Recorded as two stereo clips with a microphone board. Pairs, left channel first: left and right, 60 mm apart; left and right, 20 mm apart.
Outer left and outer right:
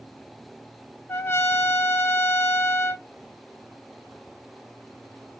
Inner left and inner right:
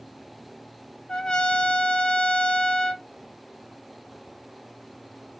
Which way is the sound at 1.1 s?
40° left (ahead or behind).